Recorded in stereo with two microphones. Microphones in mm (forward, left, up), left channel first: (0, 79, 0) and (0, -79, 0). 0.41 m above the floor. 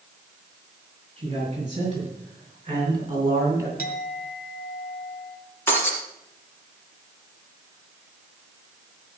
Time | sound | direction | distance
1.2 | a man speaking | 30° right (ahead or behind) | 6.5 m
3.8 | a clink | 70° left (ahead or behind) | 2 m
5.7 | breaking glass | 15° left (ahead or behind) | 3.5 m